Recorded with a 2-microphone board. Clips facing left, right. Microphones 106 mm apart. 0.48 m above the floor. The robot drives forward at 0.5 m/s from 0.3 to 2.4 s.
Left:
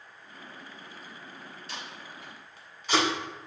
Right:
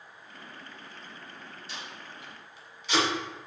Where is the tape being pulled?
65° left (ahead or behind), 0.9 m; by 3.1 s 50° left (ahead or behind), 1.1 m.